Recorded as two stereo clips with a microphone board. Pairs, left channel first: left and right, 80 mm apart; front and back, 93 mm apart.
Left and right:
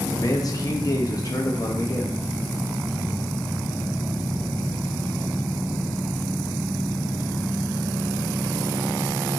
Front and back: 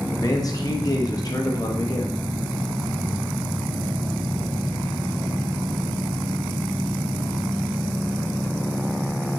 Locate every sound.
0.1 s a man speaking: 50° left, 0.7 m